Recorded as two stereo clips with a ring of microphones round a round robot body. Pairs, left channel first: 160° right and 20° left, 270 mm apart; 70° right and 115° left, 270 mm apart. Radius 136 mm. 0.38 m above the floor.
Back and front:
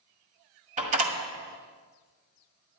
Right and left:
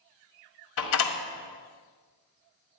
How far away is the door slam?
About 1.7 m.